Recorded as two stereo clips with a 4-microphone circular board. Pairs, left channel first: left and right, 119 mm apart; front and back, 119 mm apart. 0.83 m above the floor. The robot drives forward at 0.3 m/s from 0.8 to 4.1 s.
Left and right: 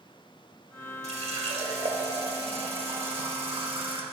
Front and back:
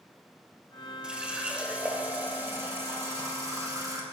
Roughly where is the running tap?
Right.